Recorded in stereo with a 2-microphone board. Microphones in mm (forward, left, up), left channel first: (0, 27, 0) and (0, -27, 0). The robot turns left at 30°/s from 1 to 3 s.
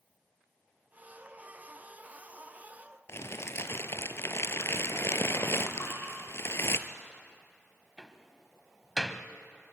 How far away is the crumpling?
About 1.1 m.